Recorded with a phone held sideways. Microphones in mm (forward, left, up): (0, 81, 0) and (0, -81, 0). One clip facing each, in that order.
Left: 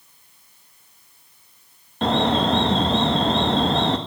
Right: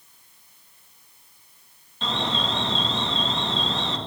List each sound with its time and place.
2.0 s an alarm: 60° left (ahead or behind), 2.5 m